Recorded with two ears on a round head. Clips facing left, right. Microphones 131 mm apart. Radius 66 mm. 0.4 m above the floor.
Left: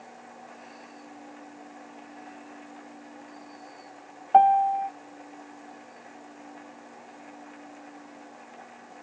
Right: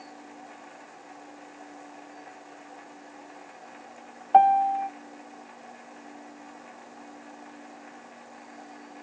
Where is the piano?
Centre (ahead or behind), 0.7 m.